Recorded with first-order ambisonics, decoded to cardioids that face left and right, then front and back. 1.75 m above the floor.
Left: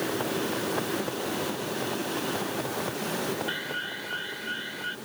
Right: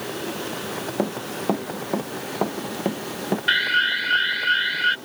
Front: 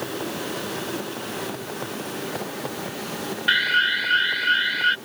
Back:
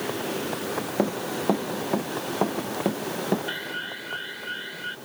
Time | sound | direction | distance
1.0 | running footsteps | 135° right | ?
3.5 | an alarm | 45° right | ?